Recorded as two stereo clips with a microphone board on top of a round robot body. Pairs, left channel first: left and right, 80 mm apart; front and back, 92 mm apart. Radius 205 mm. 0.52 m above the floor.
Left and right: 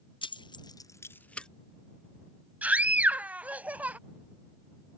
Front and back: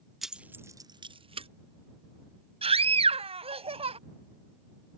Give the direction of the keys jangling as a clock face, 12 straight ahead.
9 o'clock.